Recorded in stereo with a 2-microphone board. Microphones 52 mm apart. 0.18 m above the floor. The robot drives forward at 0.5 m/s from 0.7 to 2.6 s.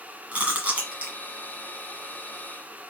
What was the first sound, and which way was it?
Chewing, 30° right (ahead or behind).